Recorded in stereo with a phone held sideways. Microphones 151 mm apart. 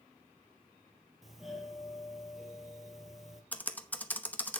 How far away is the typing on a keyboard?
About 0.9 m.